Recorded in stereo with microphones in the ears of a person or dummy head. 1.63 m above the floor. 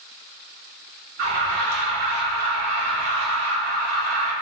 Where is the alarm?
70° right (ahead or behind), 1.1 m.